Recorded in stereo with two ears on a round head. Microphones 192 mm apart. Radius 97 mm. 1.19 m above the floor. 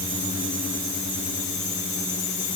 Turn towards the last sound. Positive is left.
No sound to turn to.